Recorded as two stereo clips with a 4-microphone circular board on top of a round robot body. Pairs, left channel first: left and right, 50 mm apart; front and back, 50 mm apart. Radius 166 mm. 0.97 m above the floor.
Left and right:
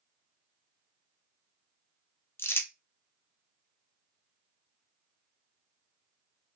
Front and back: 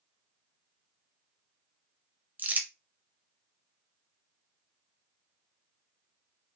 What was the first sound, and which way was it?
Crumpling, 125° left.